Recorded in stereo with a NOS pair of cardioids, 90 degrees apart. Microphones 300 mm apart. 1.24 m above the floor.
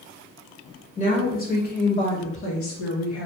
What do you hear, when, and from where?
1.0 s a woman speaking: 25° left, 2 m; by 3.3 s 60° left, 1.9 m